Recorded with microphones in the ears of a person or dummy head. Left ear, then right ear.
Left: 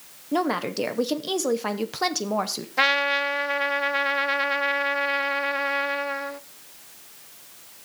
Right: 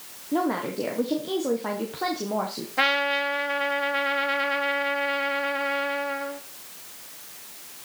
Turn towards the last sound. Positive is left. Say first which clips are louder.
# left 1 dB
turn(degrees=20)  # may be behind; listen again after turning